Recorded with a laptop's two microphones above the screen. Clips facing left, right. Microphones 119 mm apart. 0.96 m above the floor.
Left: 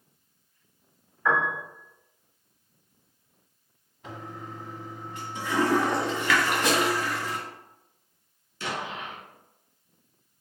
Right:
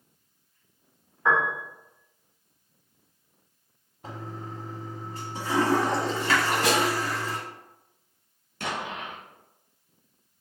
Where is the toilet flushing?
35° right (ahead or behind), 1.1 m.